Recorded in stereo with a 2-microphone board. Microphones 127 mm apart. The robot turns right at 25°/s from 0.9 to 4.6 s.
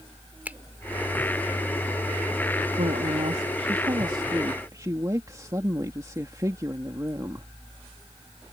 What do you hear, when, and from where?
0.5 s a finger snap: 15° right (ahead or behind)
2.8 s a woman speaking: 75° right; by 7.5 s 30° right